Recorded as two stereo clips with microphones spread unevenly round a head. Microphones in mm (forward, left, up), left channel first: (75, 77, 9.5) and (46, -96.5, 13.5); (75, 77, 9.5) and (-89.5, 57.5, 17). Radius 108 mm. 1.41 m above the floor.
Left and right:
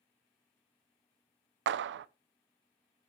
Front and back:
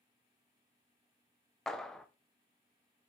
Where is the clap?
80° right, 0.5 m.